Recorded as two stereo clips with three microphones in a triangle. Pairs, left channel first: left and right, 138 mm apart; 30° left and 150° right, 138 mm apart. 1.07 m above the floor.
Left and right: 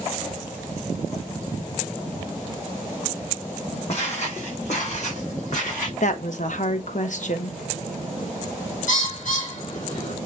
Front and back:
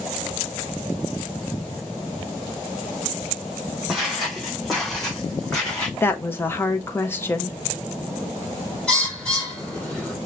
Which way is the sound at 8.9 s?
115° left.